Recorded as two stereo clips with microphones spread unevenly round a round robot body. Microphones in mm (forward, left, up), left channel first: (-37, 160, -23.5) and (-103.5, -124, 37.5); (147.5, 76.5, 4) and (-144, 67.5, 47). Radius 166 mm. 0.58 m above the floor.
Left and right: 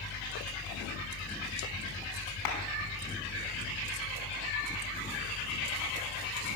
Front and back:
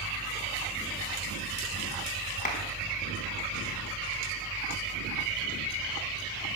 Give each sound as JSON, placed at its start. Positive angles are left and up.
{"t": 2.5, "sound": "a clap", "azimuth_deg": 65, "distance_m": 5.0}